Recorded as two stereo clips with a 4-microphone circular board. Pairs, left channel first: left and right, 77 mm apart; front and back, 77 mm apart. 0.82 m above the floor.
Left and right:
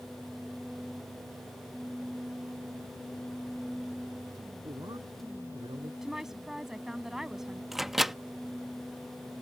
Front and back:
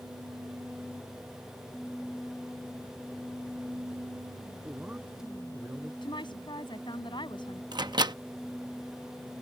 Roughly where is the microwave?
Behind.